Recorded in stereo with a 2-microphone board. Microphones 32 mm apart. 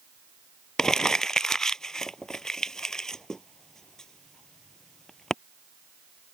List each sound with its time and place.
0.8 s crumpling: 20° left (ahead or behind)